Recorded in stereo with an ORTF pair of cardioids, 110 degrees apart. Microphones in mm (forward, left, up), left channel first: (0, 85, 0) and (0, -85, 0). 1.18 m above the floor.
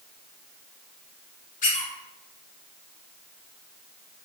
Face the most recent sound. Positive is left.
turn(degrees=50)